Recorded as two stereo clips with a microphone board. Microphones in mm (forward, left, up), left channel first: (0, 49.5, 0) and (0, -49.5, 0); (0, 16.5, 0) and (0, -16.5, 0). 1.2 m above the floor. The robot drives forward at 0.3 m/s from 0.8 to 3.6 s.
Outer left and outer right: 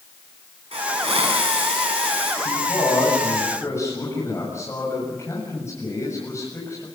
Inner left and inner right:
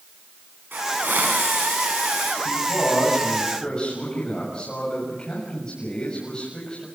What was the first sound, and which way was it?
A hiss, 85° right.